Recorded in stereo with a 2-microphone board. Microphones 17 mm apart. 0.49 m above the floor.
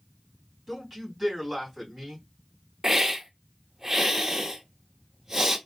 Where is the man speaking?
10° right (ahead or behind), 3 m.